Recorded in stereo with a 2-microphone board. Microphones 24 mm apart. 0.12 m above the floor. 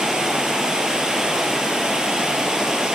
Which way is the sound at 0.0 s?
30° right (ahead or behind).